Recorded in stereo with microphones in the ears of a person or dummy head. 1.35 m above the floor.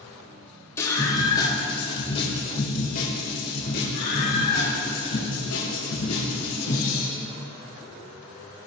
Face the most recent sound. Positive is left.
turn(degrees=85)